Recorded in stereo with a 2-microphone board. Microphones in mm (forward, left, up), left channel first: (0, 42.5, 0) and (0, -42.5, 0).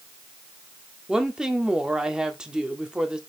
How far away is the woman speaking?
About 1.6 m.